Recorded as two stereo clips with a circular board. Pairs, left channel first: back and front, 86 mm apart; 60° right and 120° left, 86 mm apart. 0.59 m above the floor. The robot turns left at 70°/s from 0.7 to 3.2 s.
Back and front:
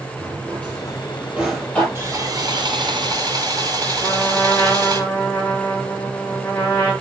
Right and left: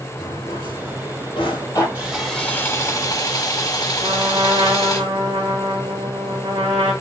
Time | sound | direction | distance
0.2 | a drawer | 35° right | 5.5 m
1.9 | sawing | 50° left | 2.5 m
4.0 | a trumpet | 130° left | 5.5 m